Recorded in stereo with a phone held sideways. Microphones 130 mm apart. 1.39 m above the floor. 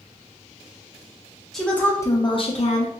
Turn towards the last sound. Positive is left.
turn(degrees=65)  # may be behind; listen again after turning